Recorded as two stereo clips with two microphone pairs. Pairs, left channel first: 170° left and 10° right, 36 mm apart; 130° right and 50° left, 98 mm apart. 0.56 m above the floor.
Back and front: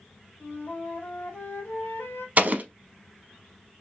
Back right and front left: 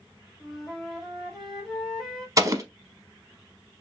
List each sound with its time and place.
0.4 s a flute: 140° left, 1.3 m
2.4 s an explosion: 5° left, 0.5 m